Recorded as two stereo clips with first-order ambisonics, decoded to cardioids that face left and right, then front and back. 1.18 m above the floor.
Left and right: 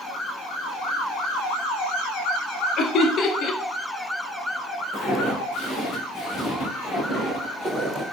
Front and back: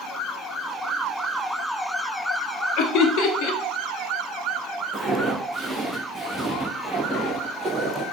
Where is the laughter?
35° left, 0.5 m.